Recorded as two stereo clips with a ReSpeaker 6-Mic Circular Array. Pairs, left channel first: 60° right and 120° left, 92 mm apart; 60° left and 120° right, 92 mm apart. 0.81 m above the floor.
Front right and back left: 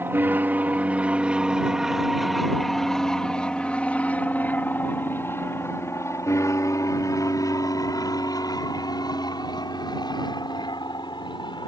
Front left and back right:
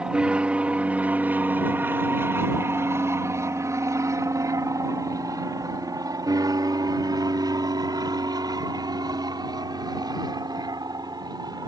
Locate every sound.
0.0 s an aircraft: 170° left; by 11.7 s 85° right